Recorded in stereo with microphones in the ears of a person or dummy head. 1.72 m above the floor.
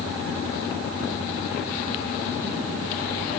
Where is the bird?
No bird in this recording.